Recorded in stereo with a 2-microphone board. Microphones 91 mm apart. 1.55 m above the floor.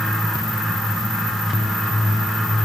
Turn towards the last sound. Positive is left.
No sound to turn to.